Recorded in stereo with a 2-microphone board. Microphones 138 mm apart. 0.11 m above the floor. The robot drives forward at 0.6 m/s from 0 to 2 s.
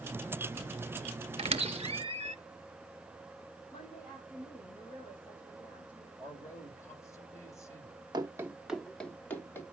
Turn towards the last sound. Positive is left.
turn(degrees=20)  # may be behind; listen again after turning